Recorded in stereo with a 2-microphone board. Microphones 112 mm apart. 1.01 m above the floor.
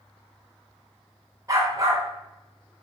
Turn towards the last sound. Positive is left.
turn(degrees=-30)  # may be behind; listen again after turning